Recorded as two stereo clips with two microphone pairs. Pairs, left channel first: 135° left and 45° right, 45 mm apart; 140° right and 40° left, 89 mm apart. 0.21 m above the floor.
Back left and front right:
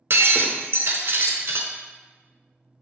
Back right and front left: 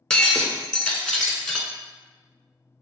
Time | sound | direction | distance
0.1 | breaking glass | 55° right | 0.7 m